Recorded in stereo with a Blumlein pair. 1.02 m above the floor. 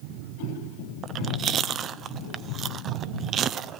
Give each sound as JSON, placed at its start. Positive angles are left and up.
{"t": 1.0, "sound": "chewing", "azimuth_deg": -25, "distance_m": 0.6}